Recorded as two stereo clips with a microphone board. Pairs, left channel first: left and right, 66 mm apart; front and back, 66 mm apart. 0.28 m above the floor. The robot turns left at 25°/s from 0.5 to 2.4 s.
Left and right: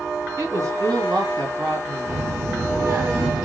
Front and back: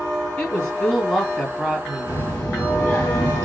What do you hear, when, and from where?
0.4 s a woman speaking: 65° right, 2.5 m; by 2.2 s 110° right, 2.5 m
2.1 s a child speaking: 45° right, 1.0 m; by 3.5 s 55° right, 1.0 m